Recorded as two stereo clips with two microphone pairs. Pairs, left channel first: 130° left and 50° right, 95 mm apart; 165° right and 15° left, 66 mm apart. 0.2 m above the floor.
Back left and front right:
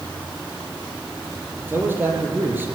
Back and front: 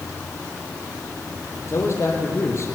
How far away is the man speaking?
About 4.5 m.